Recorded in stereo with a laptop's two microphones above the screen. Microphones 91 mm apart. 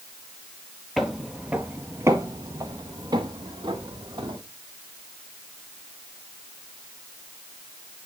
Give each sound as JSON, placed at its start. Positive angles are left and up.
{"t": 1.0, "sound": "footsteps", "side_deg": 0, "distance_m": 1.1}